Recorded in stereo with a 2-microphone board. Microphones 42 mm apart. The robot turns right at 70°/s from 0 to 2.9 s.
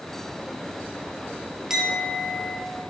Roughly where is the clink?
Behind.